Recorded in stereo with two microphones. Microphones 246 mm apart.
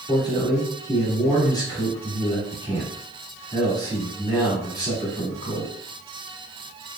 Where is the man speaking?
15° left (ahead or behind), 1.5 m.